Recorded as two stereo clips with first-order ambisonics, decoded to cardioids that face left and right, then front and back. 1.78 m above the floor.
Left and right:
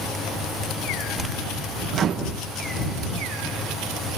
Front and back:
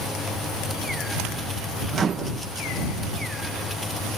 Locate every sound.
1.9 s a microwave: 125° right